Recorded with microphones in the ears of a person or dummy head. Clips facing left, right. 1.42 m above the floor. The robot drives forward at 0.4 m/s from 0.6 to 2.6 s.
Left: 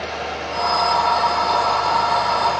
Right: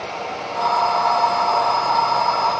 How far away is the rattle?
No rattle in this recording.